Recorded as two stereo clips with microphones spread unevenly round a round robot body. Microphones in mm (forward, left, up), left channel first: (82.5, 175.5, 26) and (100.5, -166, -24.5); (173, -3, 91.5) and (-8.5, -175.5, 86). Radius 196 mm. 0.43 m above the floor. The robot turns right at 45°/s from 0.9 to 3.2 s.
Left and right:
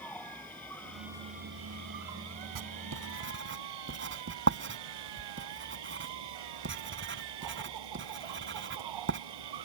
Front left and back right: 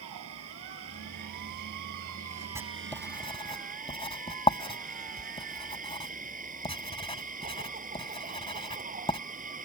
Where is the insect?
Straight behind; by 9.7 s 75° right.